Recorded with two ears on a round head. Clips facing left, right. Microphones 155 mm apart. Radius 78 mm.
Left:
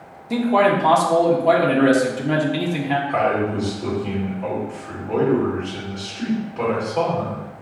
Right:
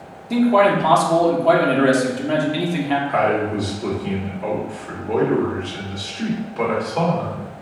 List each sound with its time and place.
0.3 s a man speaking: centre (ahead or behind), 0.7 m
3.1 s a man speaking: 10° right (ahead or behind), 1.8 m